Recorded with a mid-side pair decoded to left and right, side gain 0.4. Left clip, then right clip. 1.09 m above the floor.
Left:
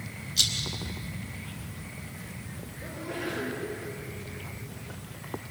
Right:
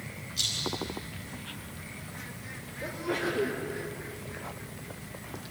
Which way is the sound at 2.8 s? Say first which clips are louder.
Right 4 dB; 50° right.